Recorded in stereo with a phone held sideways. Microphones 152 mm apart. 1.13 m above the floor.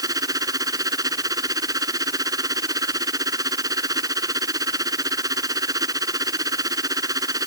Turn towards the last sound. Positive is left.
turn(degrees=-25)  # may be behind; listen again after turning